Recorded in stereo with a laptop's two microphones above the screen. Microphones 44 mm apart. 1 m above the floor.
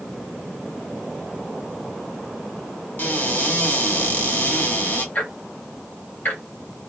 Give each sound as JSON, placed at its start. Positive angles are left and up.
{"t": 3.0, "sound": "a cupboard door", "side_deg": 40, "distance_m": 1.0}
{"t": 5.2, "sound": "ticking", "side_deg": 40, "distance_m": 0.8}